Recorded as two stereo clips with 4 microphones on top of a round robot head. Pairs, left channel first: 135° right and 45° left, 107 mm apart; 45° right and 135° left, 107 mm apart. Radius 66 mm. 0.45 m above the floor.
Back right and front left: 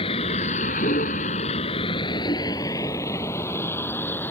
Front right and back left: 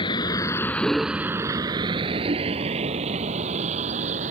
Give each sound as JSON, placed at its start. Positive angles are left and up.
{"t": 0.0, "sound": "a vehicle", "azimuth_deg": -90}